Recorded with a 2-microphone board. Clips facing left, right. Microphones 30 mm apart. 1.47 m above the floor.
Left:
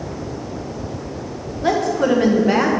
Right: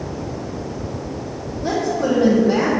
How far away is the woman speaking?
About 1.6 m.